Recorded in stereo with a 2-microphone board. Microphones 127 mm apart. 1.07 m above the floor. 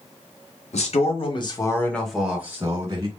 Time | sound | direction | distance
0.7 | a man speaking | 60° left (ahead or behind) | 1.6 m